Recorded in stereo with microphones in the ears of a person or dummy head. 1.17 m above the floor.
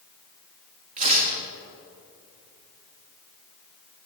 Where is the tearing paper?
45° right (ahead or behind), 3 m.